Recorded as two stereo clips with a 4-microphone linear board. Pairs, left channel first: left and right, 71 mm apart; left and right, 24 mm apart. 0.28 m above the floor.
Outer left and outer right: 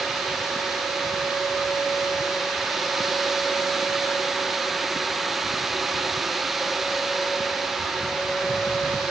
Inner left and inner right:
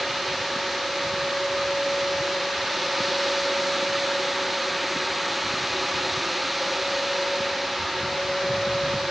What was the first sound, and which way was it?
Only background noise.